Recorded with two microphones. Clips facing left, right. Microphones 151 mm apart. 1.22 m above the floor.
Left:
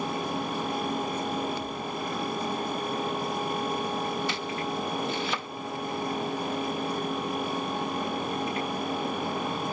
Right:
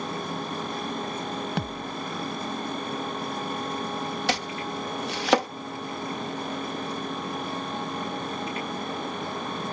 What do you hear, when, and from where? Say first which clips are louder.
1.6 s a thud: right 1 dB; 80° right
4.3 s chopping: right 2 dB; 75° right (ahead or behind)